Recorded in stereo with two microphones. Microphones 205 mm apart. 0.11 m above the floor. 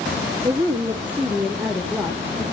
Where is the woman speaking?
15° right (ahead or behind), 1.6 m; by 2.4 s centre (ahead or behind), 2.5 m.